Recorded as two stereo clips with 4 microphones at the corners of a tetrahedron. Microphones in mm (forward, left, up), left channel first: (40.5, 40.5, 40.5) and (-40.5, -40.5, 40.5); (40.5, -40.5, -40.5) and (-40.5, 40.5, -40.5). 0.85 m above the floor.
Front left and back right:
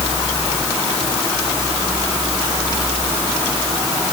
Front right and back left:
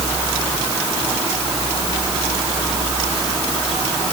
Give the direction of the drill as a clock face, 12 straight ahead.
No drill in this recording.